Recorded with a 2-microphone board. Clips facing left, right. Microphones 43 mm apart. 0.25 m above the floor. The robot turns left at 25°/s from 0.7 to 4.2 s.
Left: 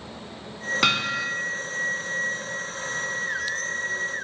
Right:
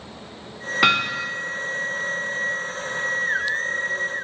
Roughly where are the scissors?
No scissors in this recording.